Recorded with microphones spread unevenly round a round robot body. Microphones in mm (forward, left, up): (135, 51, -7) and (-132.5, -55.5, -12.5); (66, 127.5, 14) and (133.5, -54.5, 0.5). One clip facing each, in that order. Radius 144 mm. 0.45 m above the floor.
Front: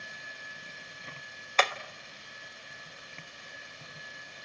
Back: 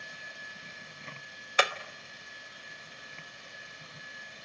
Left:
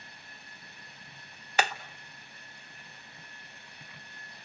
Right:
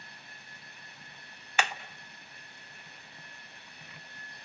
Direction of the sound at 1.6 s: 135° left.